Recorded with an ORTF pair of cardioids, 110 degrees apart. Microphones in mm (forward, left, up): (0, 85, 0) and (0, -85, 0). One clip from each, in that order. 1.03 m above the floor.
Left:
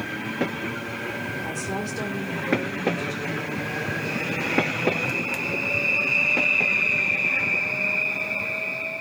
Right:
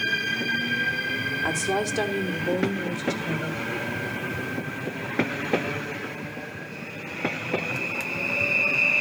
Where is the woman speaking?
65° right, 2 m; by 3.6 s 60° right, 4 m.